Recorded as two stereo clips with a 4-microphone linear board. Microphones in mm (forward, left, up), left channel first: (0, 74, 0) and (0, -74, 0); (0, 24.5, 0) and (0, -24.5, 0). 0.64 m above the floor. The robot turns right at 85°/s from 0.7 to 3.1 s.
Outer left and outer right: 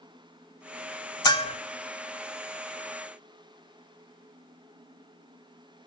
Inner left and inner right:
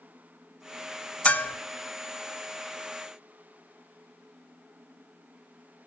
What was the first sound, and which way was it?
A bell, 25° left (ahead or behind).